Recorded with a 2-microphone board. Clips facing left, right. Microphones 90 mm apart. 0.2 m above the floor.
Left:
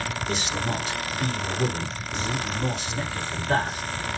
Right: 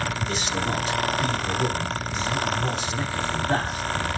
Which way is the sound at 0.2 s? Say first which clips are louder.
Right 1 dB; 40° right (ahead or behind).